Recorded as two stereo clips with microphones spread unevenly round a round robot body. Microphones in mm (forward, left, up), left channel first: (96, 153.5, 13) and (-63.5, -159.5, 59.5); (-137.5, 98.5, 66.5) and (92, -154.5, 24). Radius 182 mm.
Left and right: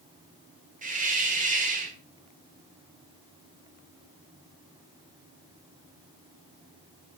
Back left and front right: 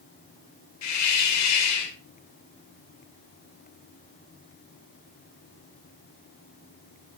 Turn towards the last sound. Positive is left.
turn(degrees=170)